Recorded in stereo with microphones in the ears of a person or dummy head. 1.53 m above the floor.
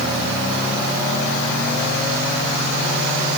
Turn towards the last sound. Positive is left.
No sound to turn to.